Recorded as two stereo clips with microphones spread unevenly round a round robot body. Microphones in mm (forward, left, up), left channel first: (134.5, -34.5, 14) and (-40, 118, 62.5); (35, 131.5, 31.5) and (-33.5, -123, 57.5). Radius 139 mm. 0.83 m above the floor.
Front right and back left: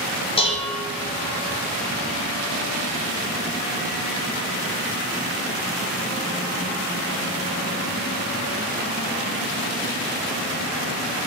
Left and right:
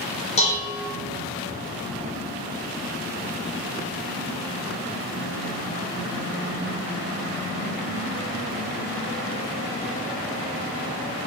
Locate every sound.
0.4 s dishes clattering: 15° left, 0.5 m